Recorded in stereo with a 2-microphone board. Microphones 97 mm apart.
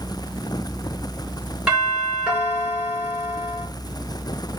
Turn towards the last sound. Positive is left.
turn(degrees=-10)  # may be behind; listen again after turning